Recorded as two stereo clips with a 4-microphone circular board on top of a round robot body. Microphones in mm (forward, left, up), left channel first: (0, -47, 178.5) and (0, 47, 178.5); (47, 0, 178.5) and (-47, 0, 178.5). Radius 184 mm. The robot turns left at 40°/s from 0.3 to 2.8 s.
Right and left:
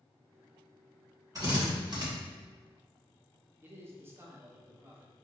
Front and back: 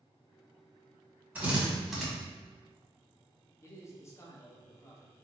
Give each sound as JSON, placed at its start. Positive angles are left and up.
{"t": 1.4, "sound": "a drill", "azimuth_deg": 120, "distance_m": 1.8}
{"t": 3.6, "sound": "a man speaking", "azimuth_deg": 40, "distance_m": 1.0}